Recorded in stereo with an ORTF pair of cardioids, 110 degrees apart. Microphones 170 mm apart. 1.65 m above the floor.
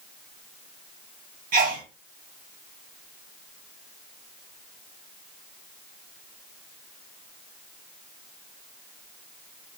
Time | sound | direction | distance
1.5 | a sneeze | 55° right | 1.5 m